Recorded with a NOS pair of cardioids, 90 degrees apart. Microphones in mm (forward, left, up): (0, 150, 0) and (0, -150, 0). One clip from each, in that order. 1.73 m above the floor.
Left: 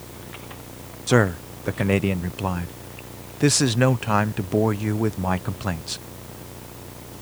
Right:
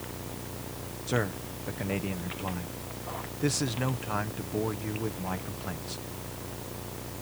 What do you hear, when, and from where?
1.1 s a man speaking: 60° left